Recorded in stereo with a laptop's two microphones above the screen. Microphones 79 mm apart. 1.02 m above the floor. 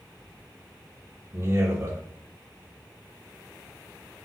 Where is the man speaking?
35° right (ahead or behind), 0.9 m.